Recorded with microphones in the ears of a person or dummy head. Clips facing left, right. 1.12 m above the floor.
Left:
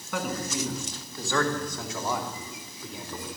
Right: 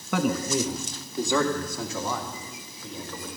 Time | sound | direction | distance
0.1 | a man speaking | 60° right (ahead or behind) | 1.3 m